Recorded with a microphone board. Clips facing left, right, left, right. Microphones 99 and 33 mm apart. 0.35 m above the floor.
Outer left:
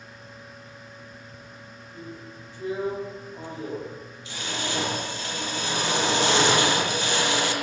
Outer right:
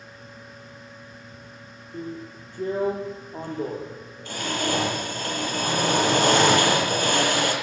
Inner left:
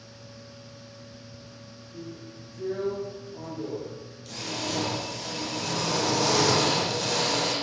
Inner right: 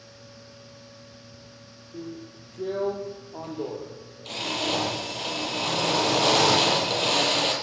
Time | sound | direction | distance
1.9 | a drill | 50° right (ahead or behind) | 8.5 m